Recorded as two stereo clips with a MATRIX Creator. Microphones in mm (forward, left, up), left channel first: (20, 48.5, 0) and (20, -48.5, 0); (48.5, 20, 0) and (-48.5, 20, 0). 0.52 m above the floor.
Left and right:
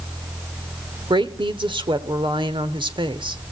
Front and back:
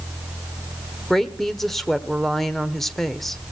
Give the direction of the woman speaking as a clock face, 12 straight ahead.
3 o'clock.